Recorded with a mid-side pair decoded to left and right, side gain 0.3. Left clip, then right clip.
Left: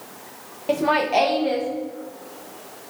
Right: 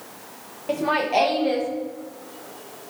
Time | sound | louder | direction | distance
0.7 | laughter | left 2 dB | 40° left | 0.8 m